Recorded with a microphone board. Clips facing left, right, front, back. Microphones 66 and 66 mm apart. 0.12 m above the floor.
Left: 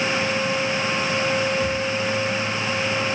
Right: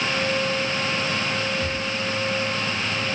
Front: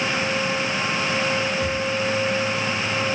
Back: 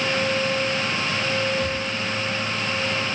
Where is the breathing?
40° right, 1.7 m.